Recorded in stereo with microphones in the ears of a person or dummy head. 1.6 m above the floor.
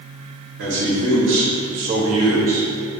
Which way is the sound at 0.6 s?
45° right (ahead or behind).